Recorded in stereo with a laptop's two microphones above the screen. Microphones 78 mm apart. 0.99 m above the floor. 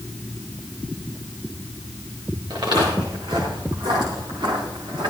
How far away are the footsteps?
About 5.5 m.